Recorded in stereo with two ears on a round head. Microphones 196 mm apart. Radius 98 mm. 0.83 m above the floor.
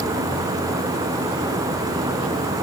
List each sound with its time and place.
Only background noise.